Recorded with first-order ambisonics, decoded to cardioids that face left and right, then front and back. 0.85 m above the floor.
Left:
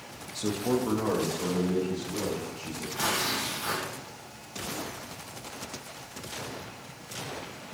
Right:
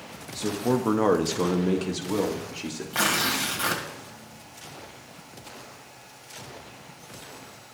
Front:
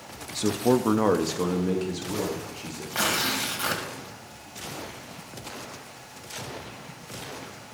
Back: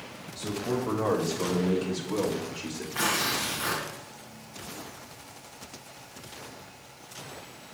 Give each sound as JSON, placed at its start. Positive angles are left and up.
{"t": 0.3, "sound": "a man speaking", "azimuth_deg": 0, "distance_m": 0.8}
{"t": 2.9, "sound": "tearing paper", "azimuth_deg": -55, "distance_m": 2.0}